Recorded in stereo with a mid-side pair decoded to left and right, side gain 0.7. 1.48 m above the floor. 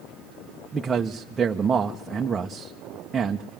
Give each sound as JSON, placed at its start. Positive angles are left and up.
{"t": 0.7, "sound": "a man speaking", "azimuth_deg": -25, "distance_m": 1.2}